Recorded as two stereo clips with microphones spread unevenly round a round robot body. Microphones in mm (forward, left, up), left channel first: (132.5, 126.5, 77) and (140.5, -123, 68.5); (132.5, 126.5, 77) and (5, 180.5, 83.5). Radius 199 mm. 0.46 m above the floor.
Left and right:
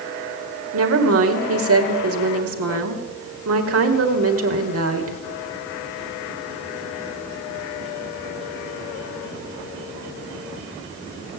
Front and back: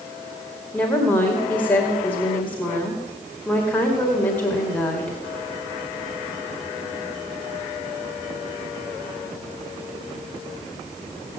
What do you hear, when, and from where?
0.7 s a woman speaking: 100° right, 2.0 m